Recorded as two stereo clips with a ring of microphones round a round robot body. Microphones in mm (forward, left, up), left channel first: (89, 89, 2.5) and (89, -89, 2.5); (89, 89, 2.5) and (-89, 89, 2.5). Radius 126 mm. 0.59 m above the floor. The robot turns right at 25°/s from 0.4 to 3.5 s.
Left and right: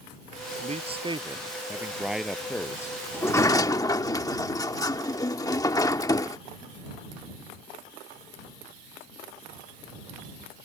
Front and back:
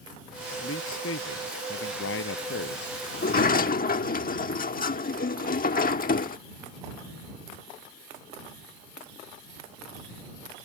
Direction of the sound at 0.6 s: 40° right.